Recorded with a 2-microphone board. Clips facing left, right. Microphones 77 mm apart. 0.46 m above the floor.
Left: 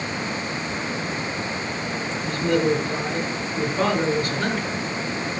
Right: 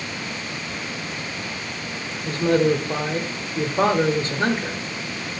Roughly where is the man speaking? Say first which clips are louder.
Right 3 dB; right.